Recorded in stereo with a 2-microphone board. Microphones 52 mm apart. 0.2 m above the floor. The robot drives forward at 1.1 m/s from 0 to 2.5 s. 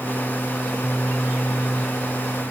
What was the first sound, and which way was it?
Only background noise.